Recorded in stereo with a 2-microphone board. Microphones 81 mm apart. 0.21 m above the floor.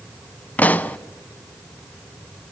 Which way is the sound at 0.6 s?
20° left (ahead or behind).